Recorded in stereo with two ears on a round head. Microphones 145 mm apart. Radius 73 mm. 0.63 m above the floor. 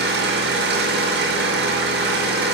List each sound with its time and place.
0.0 s an engine running: 75° right (ahead or behind), 6 m